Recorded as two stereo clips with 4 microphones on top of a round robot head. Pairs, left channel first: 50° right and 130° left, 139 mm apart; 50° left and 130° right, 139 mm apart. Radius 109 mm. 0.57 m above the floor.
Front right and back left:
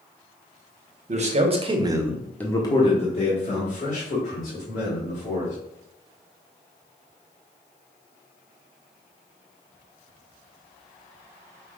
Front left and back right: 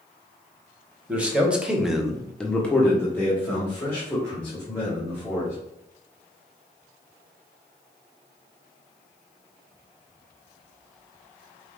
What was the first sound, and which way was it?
A man speaking, 150° left.